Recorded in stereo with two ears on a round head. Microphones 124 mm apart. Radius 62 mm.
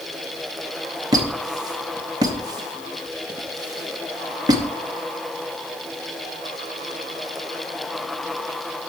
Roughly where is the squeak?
Right.